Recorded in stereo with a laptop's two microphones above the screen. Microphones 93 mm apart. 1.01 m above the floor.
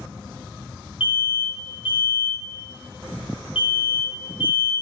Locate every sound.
1.0 s an alarm: 65° left (ahead or behind), 0.7 m